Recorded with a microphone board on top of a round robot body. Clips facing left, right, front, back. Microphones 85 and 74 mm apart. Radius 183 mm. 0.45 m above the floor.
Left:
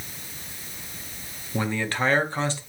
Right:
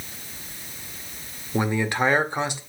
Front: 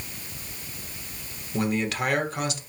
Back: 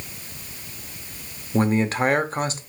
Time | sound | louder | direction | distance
1.5 | a man speaking | right 3 dB, back 5 dB | 155° right | 1.0 m